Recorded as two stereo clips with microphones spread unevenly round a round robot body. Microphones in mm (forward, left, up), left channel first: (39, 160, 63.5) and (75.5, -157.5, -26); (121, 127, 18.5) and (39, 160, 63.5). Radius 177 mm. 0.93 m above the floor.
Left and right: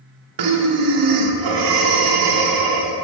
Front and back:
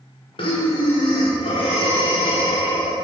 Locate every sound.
0.4 s breathing: 65° right, 1.1 m